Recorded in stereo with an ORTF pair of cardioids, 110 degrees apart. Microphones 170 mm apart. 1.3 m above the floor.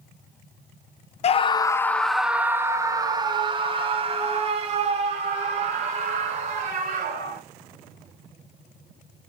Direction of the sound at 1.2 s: 40° left.